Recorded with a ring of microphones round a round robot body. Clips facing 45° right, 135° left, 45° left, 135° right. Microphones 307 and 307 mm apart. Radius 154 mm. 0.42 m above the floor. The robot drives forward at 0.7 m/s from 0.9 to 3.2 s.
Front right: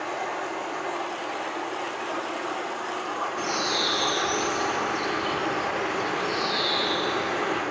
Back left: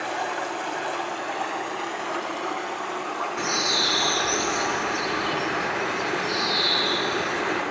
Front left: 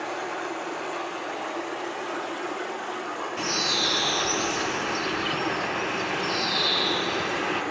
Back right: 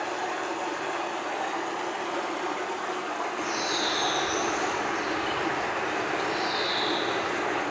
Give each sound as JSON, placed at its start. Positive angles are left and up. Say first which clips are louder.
{"t": 0.0, "sound": "running water", "louder": "back left 1 dB, even", "azimuth_deg": 145, "distance_m": 2.5}
{"t": 3.4, "sound": "a bird", "louder": "even, front left 1 dB", "azimuth_deg": 70, "distance_m": 4.0}